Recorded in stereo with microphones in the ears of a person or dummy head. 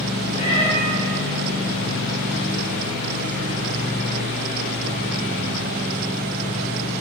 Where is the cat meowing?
40° left (ahead or behind), 4 m.